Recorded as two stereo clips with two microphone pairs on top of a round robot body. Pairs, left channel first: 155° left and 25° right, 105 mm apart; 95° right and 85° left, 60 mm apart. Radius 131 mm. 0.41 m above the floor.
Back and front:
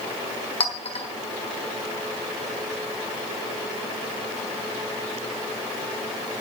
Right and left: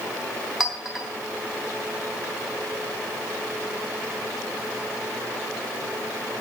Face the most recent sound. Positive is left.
turn(degrees=175)